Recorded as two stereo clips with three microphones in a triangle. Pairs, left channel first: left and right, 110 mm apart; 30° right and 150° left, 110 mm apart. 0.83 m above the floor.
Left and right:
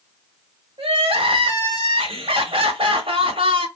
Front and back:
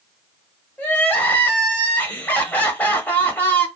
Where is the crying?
105° right, 1.1 m.